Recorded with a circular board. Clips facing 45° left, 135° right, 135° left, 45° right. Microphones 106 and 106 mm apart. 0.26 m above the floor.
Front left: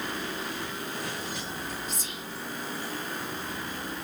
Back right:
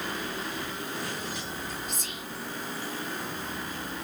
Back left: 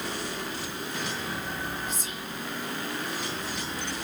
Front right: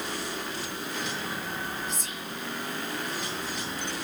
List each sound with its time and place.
1.9 s whispering: 130° right, 1.8 m